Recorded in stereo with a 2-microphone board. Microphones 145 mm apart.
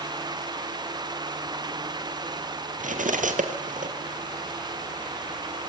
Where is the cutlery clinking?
60° right (ahead or behind), 1.7 m.